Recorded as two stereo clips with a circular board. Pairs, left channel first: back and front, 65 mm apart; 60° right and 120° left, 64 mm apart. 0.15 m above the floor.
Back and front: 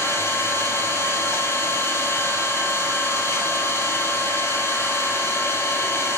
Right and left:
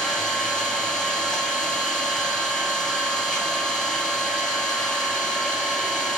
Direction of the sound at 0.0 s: 140° right.